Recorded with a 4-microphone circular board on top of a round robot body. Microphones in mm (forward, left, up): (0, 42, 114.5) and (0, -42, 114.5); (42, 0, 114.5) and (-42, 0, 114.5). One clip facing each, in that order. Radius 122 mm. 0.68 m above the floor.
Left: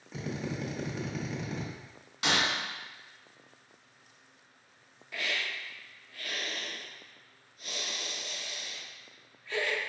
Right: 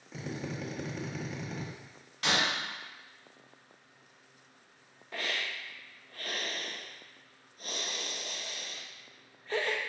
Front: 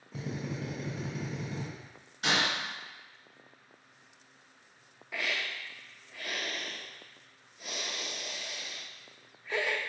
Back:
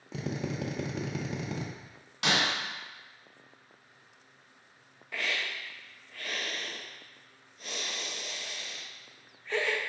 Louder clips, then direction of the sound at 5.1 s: Left 1 dB, back 1 dB; 80° right.